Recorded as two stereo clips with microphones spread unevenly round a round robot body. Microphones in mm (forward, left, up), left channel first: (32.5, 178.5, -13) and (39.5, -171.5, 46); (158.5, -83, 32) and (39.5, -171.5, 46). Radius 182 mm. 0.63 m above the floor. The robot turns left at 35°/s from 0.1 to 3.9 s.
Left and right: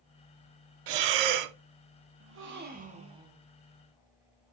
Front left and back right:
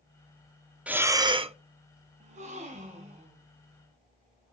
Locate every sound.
0.9 s breathing: 60° right, 0.5 m; by 1.6 s 85° right, 0.5 m
2.2 s a gasp: 140° right, 0.9 m; by 3.5 s straight behind, 0.9 m